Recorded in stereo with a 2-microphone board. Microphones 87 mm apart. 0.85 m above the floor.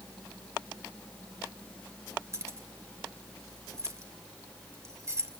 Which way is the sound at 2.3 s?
30° right (ahead or behind).